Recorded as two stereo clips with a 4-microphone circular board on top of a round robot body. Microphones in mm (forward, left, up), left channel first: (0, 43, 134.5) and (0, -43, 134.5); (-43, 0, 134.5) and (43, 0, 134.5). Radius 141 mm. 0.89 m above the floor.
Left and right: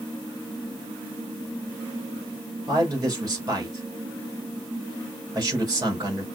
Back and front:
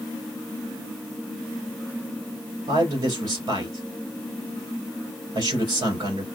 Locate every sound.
2.7 s a man speaking: 40° right, 3.5 m